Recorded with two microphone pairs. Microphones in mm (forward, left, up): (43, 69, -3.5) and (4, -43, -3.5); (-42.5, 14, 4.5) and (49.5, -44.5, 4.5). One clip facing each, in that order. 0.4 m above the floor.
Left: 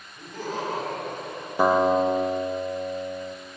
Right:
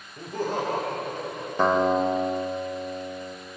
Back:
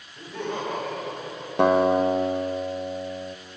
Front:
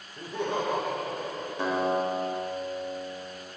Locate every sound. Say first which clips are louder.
0.2 s laughter: right 4 dB, front 1 dB; 95° right, 1.7 m; by 1.5 s 90° right, 3.5 m
1.6 s a guitar: left 2 dB, back 8 dB; 150° left, 0.6 m